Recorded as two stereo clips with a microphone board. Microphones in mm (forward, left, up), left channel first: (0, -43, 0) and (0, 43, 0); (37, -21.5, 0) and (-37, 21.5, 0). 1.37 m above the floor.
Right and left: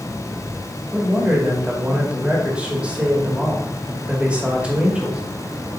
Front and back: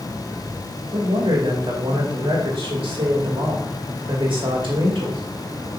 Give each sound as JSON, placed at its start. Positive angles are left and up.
{"t": 0.9, "sound": "a man speaking", "azimuth_deg": 165, "distance_m": 2.5}